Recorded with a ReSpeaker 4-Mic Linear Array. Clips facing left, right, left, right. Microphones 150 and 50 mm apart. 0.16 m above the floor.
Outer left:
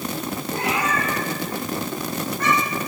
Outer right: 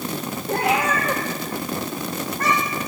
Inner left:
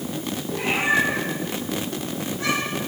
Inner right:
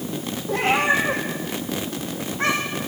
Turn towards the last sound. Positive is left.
turn(degrees=-30)  # may be behind; listen again after turning